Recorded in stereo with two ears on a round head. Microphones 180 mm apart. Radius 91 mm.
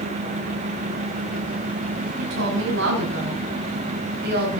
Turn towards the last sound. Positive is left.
turn(degrees=-55)  # may be behind; listen again after turning